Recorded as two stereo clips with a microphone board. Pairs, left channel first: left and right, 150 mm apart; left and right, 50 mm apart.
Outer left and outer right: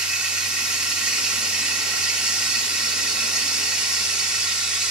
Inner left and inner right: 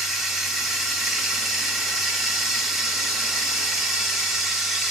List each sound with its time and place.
0.0 s running water: 5° right (ahead or behind), 1.3 m